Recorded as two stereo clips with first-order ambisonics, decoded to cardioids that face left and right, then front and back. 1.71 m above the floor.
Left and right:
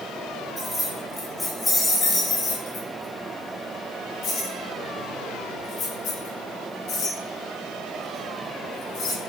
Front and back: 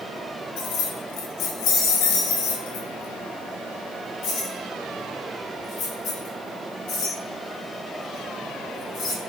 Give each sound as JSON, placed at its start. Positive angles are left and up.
{"t": 0.6, "sound": "keys jangling", "azimuth_deg": -10, "distance_m": 1.6}